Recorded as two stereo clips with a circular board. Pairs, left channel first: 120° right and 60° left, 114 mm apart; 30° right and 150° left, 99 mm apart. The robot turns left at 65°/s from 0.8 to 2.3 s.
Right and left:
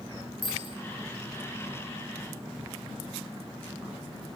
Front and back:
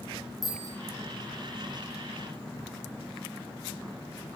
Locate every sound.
0.4 s a bicycle bell: 155° right, 6.5 m